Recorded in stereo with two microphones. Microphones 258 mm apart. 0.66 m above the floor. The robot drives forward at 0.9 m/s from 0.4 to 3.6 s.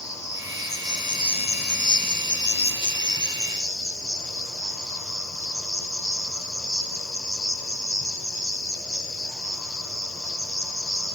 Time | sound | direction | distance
0.0 | an insect | 10° left (ahead or behind) | 1.6 m